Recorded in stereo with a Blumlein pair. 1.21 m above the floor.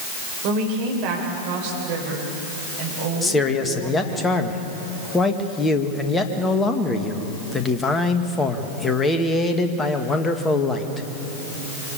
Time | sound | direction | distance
0.4 | a woman speaking | 40° right | 4.5 m
3.2 | a man speaking | 15° left | 1.9 m